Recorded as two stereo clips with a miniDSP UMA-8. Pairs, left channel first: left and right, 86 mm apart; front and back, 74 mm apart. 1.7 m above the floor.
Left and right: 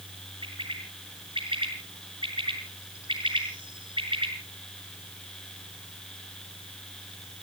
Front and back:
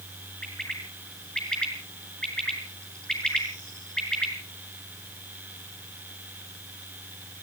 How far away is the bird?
About 5.5 m.